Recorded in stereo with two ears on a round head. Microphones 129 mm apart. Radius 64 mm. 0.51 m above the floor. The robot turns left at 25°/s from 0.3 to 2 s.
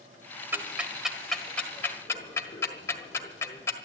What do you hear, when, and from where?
0.5 s ticking: 15° right (ahead or behind), 1.5 m; by 3.8 s 20° left (ahead or behind), 1.5 m